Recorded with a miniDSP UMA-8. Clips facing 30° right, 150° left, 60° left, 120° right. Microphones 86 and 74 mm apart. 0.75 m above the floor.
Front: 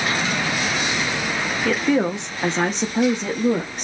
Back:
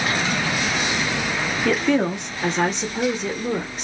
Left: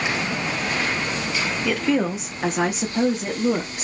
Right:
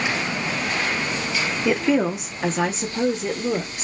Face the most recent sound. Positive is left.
turn(degrees=-5)